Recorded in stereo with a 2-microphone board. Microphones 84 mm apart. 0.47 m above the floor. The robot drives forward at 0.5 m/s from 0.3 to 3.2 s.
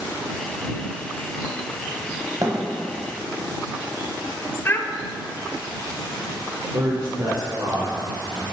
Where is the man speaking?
40° right (ahead or behind), 1.3 m.